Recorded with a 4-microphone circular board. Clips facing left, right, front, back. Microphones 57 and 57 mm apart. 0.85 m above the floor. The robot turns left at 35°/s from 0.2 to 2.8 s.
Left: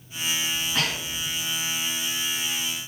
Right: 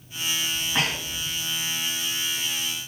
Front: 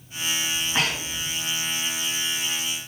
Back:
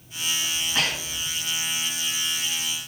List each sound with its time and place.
0.5 s breathing: 30° right, 1.1 m; by 1.3 s 55° right, 1.1 m